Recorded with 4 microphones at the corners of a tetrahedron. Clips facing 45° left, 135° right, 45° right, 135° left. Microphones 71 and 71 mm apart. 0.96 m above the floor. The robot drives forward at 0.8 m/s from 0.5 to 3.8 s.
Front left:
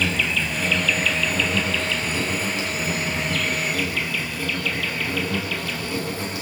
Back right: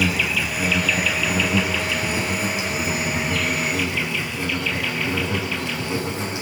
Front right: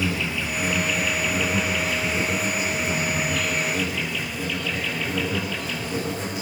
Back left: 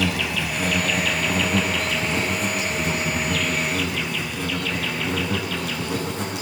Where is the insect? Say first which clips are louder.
Back right 1 dB, back left 2 dB; 145° left, 5.5 m; by 6.4 s 155° left, 8 m.